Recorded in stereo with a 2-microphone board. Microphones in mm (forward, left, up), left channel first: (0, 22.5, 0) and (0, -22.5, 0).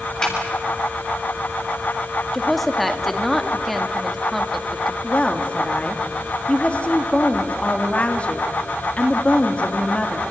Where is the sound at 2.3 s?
5° left (ahead or behind), 2 m.